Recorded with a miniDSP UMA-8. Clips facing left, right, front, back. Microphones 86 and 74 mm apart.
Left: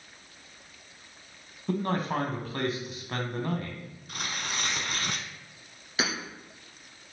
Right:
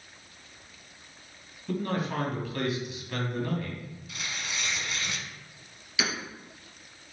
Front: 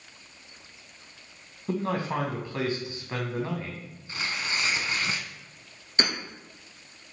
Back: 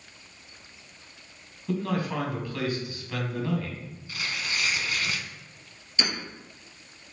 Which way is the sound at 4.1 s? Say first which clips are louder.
Left 3 dB, front 1 dB; 55° left.